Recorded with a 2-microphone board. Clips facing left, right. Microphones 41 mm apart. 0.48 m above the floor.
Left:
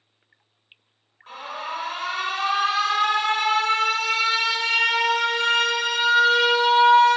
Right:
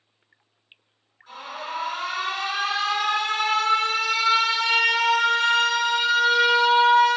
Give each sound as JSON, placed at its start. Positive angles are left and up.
{"t": 1.3, "sound": "an alarm", "side_deg": 45, "distance_m": 0.7}